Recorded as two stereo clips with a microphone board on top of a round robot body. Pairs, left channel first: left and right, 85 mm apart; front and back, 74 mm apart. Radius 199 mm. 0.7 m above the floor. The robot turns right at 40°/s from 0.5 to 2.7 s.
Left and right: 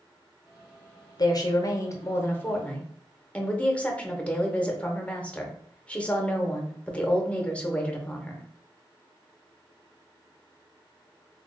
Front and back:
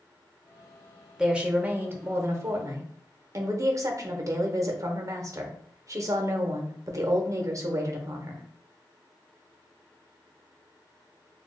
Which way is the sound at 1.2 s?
100° left.